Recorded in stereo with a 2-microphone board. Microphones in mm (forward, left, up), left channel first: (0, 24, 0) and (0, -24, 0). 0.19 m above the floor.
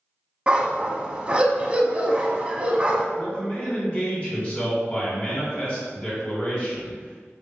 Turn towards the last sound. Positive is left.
turn(degrees=25)  # may be behind; listen again after turning